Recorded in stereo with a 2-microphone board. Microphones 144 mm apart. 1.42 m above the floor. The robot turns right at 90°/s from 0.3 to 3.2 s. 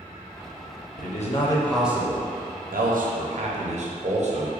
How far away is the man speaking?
About 0.7 m.